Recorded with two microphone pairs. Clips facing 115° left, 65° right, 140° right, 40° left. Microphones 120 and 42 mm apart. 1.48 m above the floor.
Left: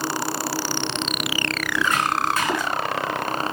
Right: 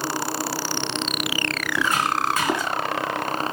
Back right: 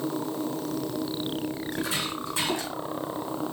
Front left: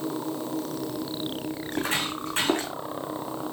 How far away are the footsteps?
About 4.5 m.